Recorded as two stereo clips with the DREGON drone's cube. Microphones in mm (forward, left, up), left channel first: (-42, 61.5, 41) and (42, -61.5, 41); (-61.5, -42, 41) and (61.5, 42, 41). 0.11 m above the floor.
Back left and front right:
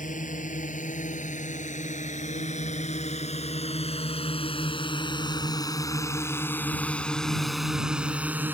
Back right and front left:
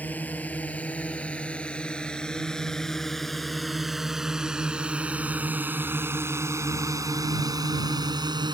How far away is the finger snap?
I don't hear a finger snap.